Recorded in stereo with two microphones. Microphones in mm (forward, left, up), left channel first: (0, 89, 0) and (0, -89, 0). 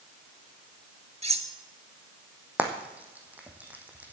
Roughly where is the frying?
Centre.